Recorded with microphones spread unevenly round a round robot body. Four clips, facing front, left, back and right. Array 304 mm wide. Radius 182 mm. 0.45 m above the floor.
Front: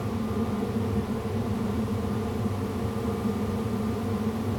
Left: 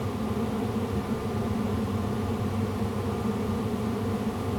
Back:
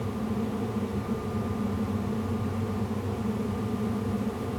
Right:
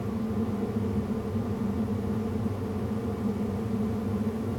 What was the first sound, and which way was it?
Only background noise.